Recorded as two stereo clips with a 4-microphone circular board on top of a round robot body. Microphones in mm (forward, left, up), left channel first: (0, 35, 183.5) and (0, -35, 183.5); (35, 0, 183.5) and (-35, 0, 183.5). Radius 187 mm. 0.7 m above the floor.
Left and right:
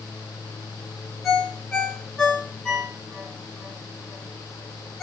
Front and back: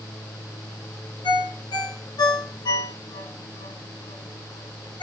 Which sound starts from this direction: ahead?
A ringtone, at 1.2 s.